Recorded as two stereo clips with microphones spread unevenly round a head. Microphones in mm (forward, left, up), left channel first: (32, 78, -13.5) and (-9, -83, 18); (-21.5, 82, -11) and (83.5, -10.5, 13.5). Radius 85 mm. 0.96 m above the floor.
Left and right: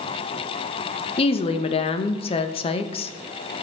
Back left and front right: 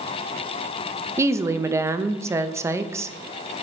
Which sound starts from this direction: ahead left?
A woman speaking, at 1.2 s.